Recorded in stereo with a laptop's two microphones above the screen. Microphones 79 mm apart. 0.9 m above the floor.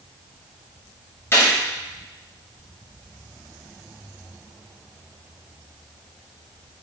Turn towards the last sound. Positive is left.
turn(degrees=30)  # may be behind; listen again after turning